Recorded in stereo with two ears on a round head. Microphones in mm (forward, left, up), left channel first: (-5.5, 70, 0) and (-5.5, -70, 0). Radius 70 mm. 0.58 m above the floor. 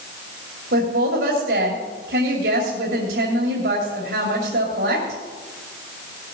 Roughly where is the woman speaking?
Right.